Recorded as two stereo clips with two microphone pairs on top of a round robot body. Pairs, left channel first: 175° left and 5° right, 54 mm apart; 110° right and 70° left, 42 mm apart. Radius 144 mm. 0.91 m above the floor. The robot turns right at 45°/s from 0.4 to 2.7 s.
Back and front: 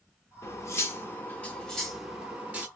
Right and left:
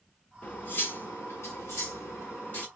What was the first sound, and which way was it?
Cutlery clinking, 160° right.